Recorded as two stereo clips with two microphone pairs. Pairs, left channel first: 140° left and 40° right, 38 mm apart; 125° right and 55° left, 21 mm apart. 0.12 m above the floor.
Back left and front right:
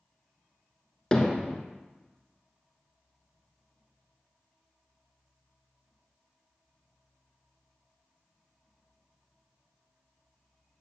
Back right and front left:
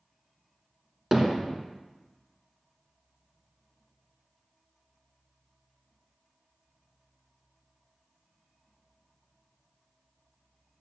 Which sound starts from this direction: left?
Hammering, at 1.1 s.